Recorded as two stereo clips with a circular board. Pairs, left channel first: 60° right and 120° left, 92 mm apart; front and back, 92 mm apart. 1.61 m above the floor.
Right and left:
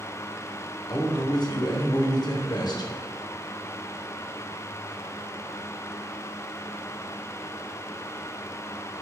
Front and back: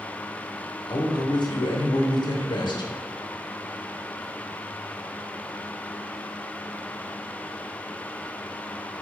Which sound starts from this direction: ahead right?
A man speaking, at 0.9 s.